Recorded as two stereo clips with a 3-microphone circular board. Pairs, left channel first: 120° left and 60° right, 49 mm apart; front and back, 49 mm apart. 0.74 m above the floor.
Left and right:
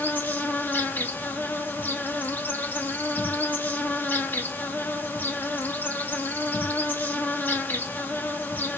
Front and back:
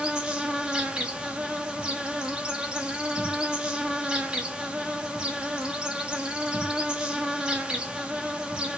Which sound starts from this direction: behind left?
An insect, at 0.0 s.